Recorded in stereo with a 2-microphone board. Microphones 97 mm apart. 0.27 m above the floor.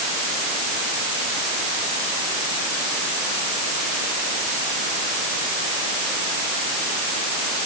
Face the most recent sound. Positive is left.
No sound to turn to.